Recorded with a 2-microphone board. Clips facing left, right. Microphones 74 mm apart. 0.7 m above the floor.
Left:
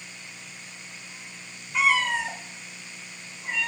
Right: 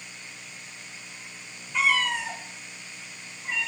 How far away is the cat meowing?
About 0.6 m.